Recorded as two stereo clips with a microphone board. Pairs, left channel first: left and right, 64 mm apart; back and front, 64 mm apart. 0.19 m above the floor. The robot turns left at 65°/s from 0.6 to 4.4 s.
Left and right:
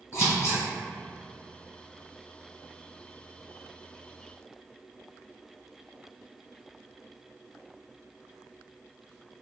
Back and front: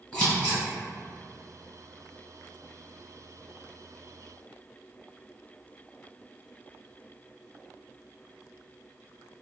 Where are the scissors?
120° left, 1.8 m.